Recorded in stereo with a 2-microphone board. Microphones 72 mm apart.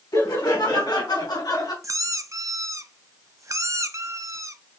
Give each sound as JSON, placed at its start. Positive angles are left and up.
{"t": 0.1, "sound": "laughter", "side_deg": 60, "distance_m": 2.5}
{"t": 1.8, "sound": "a squeak", "side_deg": -45, "distance_m": 0.5}